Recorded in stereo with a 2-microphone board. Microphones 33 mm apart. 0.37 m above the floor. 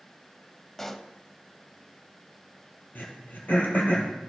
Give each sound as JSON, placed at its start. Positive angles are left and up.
{"t": 0.8, "sound": "a pop", "side_deg": 10, "distance_m": 0.5}
{"t": 3.0, "sound": "throat clearing", "side_deg": 80, "distance_m": 2.0}